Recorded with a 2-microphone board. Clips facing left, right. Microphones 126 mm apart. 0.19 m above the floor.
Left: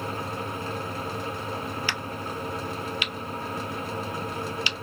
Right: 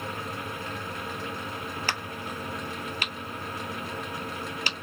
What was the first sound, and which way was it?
A crack, 45° right (ahead or behind).